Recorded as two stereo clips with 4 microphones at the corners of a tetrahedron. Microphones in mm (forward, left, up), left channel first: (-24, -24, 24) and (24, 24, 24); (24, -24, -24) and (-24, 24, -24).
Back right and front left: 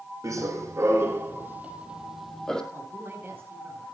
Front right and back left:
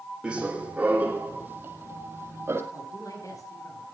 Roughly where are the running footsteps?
Ahead left.